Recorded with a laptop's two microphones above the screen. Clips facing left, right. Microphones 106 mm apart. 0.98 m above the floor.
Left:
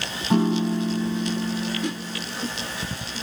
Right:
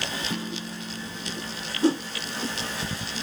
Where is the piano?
55° left (ahead or behind).